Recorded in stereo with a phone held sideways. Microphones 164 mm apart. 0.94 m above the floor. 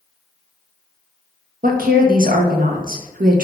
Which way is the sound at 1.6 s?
65° right (ahead or behind).